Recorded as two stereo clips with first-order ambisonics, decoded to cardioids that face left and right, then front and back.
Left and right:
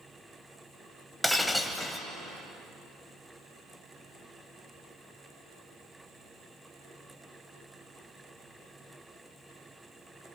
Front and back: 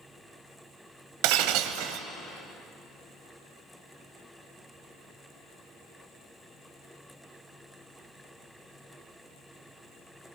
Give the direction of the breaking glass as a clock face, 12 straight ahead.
6 o'clock.